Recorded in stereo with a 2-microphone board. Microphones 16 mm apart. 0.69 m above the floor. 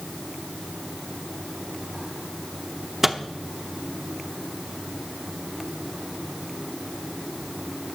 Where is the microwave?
20° right (ahead or behind), 0.8 m.